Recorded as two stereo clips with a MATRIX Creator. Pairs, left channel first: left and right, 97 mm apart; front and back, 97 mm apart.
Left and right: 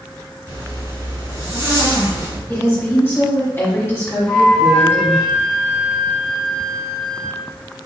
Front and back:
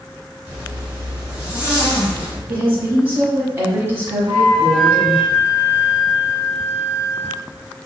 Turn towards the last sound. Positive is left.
turn(degrees=175)